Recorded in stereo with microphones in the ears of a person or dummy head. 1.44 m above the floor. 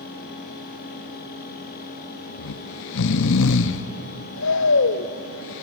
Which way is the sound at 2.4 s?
65° left (ahead or behind).